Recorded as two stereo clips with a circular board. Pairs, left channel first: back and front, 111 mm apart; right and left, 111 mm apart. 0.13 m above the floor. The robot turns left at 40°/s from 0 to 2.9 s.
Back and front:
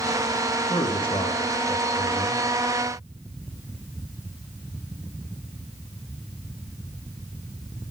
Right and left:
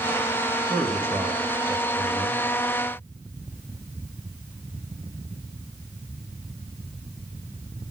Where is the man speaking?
140° right, 1.9 m; by 2.4 s 150° left, 1.9 m.